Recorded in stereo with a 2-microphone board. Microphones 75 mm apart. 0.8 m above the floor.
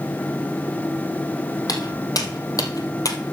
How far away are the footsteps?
About 2 m.